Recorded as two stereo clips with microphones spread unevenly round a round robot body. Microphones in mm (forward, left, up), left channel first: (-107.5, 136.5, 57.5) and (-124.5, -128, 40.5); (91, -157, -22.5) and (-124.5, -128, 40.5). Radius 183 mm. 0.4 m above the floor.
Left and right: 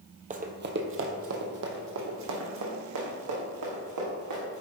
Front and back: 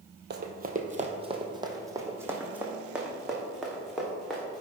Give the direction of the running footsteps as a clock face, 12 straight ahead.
5 o'clock.